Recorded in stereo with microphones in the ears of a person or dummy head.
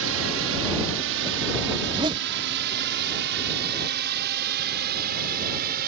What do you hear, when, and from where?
0.0 s a drone: 70° right (ahead or behind); by 5.9 s 50° right (ahead or behind)
1.8 s a zipper: 25° right (ahead or behind)